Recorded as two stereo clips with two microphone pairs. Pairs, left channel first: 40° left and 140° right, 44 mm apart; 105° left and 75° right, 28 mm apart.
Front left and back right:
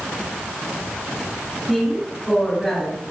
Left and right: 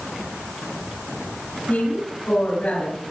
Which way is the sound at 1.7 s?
125° left.